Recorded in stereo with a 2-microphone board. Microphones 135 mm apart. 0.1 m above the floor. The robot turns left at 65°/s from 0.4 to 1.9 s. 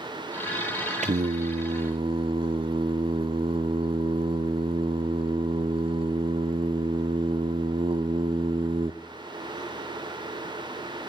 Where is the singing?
75° right, 0.6 m; by 8.9 s 130° right, 0.6 m.